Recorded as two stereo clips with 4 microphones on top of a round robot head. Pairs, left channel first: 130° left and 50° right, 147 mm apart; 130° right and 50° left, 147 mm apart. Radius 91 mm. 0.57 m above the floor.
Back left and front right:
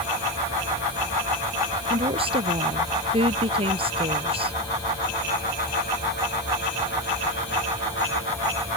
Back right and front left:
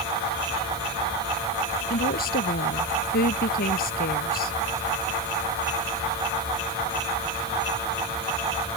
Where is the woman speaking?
105° right.